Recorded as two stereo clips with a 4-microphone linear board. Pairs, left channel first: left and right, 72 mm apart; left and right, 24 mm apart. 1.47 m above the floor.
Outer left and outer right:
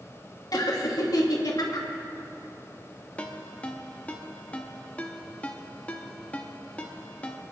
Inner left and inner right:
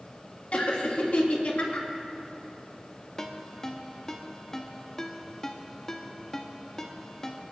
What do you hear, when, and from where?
0.5 s laughter: 60° left (ahead or behind), 2.5 m
3.2 s a ringtone: 20° left (ahead or behind), 1.2 m